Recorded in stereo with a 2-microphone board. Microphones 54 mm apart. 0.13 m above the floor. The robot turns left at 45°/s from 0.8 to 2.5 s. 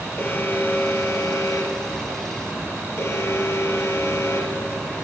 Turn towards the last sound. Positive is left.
turn(degrees=60)